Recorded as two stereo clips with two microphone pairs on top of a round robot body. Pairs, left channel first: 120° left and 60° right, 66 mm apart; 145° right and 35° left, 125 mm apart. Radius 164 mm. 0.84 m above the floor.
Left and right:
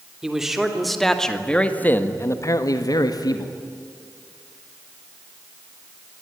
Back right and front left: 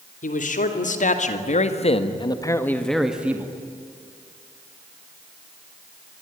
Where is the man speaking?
145° right, 3.5 m; by 3.6 s 105° left, 2 m.